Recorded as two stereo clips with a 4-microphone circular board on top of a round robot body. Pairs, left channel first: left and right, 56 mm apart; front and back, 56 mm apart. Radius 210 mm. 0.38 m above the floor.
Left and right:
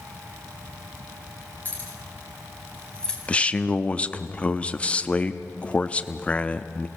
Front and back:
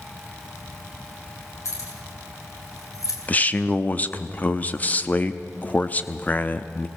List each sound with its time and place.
1.6 s keys jangling: 30° left, 5 m; by 3.2 s 15° left, 3 m
3.3 s a man speaking: 40° left, 1.0 m